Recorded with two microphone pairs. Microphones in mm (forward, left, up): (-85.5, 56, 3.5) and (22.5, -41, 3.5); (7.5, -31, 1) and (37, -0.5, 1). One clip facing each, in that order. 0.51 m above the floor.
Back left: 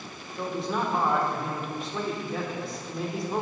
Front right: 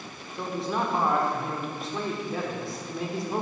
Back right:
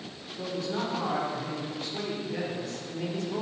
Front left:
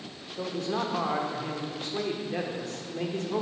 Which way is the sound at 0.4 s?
50° left.